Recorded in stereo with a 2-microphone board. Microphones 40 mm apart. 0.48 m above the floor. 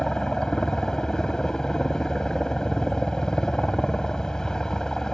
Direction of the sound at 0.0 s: 15° left (ahead or behind).